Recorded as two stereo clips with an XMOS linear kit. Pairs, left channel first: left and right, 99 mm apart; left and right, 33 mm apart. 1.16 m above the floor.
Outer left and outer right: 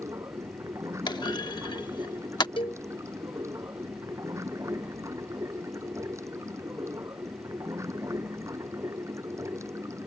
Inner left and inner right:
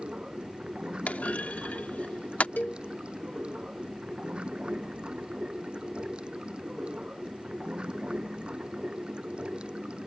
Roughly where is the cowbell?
Left.